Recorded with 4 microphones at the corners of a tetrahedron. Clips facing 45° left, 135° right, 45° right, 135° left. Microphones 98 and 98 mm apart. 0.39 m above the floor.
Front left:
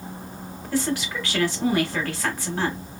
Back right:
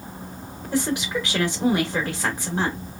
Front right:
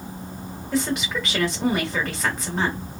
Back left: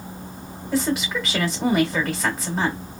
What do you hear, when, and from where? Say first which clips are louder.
0.7 s a woman speaking: back right 1 dB, back left 2 dB; 135° right, 1.0 m